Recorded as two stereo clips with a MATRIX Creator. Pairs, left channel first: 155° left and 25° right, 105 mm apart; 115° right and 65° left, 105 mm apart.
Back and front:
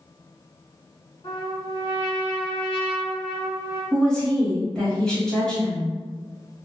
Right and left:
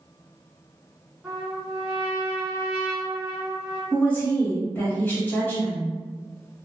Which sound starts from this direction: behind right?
A woman speaking, at 3.9 s.